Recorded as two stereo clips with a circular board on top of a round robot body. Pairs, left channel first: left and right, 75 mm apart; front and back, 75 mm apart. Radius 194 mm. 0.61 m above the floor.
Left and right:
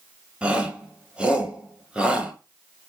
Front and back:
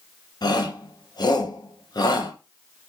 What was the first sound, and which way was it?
A shout, 15° right.